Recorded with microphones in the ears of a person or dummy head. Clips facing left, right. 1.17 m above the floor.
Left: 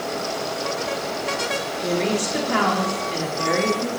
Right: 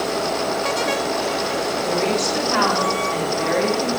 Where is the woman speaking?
45° left (ahead or behind), 3.5 m; by 3.9 s 65° left (ahead or behind), 3.5 m.